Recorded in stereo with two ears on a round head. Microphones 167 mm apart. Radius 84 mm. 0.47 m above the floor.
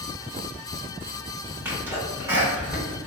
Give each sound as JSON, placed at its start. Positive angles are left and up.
{"t": 1.6, "sound": "a sneeze", "side_deg": -10, "distance_m": 1.1}